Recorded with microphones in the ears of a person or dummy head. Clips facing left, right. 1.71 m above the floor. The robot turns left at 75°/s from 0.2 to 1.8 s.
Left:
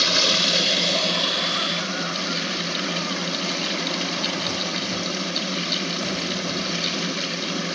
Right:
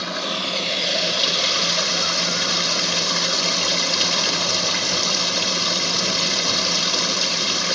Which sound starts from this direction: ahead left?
Running water, at 0.0 s.